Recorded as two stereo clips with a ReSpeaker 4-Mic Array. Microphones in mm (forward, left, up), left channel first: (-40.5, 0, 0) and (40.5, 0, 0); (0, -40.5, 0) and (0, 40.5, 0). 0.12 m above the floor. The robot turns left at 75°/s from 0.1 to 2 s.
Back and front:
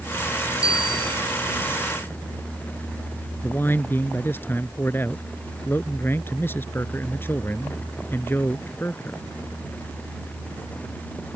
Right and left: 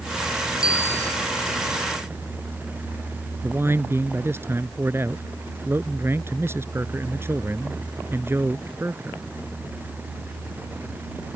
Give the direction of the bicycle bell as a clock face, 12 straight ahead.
4 o'clock.